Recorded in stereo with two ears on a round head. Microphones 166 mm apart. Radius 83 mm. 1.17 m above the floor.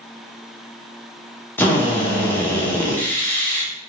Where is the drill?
10° left (ahead or behind), 0.8 m.